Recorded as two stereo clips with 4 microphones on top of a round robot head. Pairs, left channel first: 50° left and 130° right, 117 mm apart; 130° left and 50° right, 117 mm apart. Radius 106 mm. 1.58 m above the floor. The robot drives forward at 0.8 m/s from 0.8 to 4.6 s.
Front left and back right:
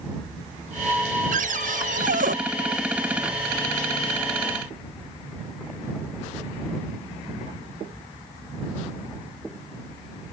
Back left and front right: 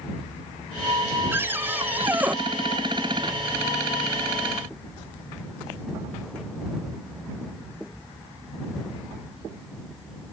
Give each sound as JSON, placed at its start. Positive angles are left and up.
{"t": 1.3, "sound": "a cupboard door", "azimuth_deg": -125}